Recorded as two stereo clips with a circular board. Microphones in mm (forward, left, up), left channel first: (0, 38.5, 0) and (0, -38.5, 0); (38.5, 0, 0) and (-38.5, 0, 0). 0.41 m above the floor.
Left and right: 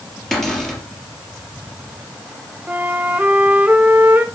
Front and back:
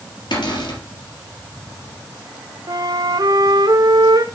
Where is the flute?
155° right, 0.7 m.